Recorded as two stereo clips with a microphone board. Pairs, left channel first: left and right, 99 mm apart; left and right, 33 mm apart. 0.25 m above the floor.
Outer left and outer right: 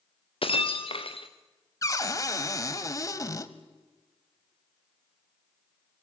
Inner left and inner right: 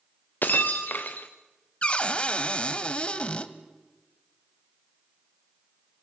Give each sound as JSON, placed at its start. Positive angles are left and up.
{"t": 0.4, "sound": "breaking glass", "side_deg": 65, "distance_m": 1.5}
{"t": 1.8, "sound": "a cupboard door", "side_deg": 35, "distance_m": 0.9}